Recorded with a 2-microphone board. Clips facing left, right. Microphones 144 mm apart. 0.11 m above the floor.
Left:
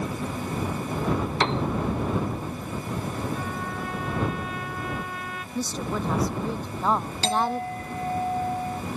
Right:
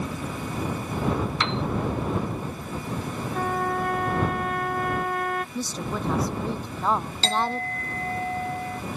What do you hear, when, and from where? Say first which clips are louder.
1.4 s a piano: left 3 dB; 40° left (ahead or behind)
3.3 s a trumpet: right 6 dB; 55° right (ahead or behind)
5.5 s a woman speaking: left 1 dB; centre (ahead or behind)
7.2 s a clink: left 2 dB; 15° left (ahead or behind)